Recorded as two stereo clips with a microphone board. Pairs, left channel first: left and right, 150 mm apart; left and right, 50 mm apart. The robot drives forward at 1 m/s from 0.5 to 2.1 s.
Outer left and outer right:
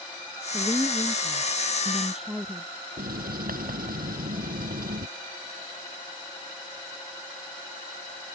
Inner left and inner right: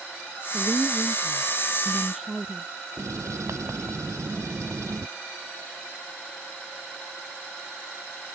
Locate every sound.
0.5 s a woman speaking: centre (ahead or behind)
3.0 s writing: 75° right (ahead or behind)